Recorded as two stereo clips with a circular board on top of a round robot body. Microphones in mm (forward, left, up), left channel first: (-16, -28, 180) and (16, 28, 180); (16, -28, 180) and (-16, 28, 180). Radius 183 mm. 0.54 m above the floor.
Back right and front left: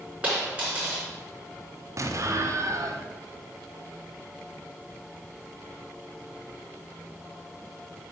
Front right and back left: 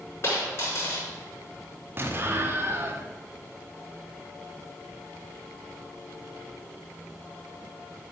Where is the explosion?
75° left, 1.6 m.